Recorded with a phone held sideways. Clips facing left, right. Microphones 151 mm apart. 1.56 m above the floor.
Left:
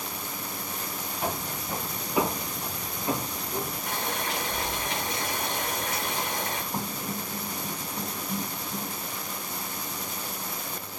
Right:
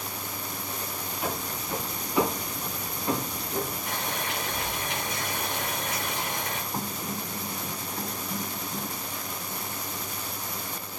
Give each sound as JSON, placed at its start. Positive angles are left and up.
{"t": 1.2, "sound": "footsteps", "side_deg": 30, "distance_m": 2.5}
{"t": 3.9, "sound": "boiling", "side_deg": 35, "distance_m": 3.0}
{"t": 6.7, "sound": "writing", "side_deg": 35, "distance_m": 2.0}